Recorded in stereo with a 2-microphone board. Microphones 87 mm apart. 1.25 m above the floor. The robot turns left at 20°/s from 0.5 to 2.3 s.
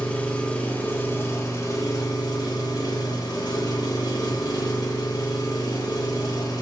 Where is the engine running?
165° left, 1.3 m; by 6.6 s 125° left, 1.3 m.